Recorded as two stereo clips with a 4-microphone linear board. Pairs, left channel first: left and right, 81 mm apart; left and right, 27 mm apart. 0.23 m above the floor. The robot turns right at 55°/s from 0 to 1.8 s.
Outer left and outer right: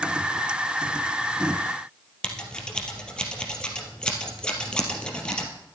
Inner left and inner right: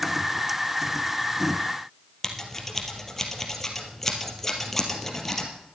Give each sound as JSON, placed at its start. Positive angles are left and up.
{"t": 2.2, "sound": "scissors", "side_deg": 10, "distance_m": 2.5}